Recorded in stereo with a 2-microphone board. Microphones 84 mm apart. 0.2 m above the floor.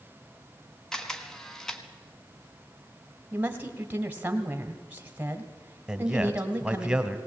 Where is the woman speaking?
20° right (ahead or behind), 1.2 m.